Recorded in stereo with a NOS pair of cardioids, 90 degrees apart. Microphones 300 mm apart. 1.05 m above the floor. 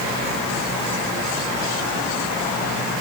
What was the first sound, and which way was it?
Only background noise.